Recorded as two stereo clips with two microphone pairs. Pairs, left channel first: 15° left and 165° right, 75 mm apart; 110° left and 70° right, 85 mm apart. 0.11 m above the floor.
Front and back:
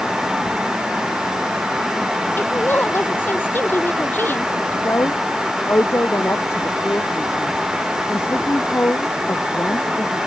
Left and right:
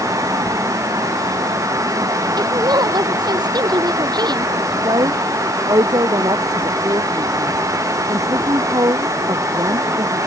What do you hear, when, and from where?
2.4 s a woman speaking: 45° right
4.8 s a woman speaking: 40° right